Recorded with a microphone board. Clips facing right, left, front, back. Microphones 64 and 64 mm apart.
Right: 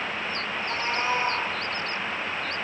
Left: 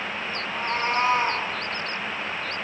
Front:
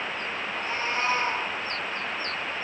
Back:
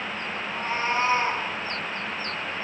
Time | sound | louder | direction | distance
0.4 | a cat meowing | left 6 dB, back 4 dB | 130° left | 4.5 m